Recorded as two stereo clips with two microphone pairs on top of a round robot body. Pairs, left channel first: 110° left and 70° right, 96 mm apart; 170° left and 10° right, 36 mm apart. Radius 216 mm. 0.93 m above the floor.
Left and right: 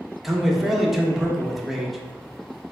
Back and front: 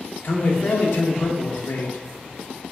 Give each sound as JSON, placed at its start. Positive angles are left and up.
{"t": 0.2, "sound": "a man speaking", "azimuth_deg": -160, "distance_m": 1.0}